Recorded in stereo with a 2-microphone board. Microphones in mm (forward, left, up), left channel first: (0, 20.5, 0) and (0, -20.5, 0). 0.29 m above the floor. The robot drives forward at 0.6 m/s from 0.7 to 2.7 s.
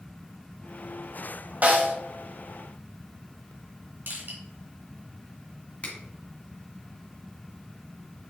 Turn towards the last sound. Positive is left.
turn(degrees=35)  # may be behind; listen again after turning